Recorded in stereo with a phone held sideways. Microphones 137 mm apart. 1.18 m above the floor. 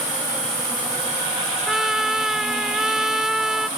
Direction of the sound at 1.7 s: 5° right (ahead or behind).